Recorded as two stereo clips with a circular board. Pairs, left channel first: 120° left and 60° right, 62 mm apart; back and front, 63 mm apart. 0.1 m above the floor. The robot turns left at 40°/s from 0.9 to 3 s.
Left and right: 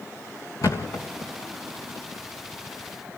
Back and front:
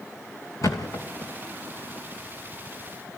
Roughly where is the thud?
Behind left.